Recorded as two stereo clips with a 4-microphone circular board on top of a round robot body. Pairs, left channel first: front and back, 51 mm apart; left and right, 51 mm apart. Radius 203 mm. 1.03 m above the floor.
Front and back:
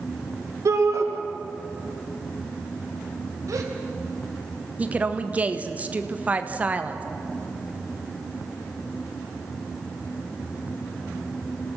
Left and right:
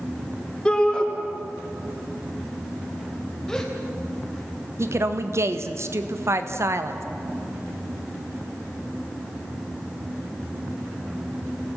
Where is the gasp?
170° left, 3.5 m.